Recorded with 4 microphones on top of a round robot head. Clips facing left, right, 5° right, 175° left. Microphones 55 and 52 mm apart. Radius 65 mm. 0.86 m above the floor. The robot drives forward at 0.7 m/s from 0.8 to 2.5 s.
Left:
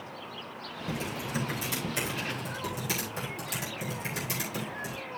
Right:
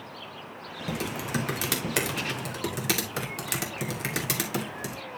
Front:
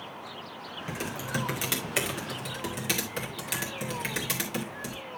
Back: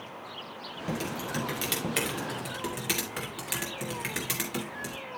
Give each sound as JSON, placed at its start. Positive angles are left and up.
{"t": 0.9, "sound": "typing on a keyboard", "azimuth_deg": -70, "distance_m": 2.5}